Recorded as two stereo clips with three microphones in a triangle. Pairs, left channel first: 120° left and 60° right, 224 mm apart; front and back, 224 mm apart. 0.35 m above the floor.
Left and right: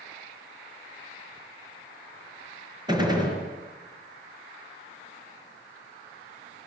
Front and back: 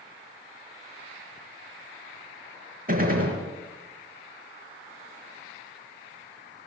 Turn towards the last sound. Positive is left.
turn(degrees=-130)